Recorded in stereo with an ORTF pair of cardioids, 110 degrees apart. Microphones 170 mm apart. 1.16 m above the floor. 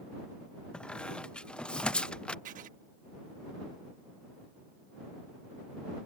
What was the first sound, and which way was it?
A squeak, 5° left.